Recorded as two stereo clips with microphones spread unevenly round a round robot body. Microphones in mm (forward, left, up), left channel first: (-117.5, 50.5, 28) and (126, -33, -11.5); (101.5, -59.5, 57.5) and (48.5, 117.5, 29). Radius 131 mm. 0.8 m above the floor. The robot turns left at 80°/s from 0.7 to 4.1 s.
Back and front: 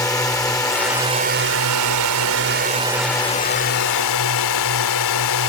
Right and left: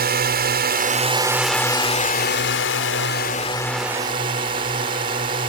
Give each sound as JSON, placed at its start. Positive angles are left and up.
{"t": 0.0, "sound": "a drone", "azimuth_deg": 80}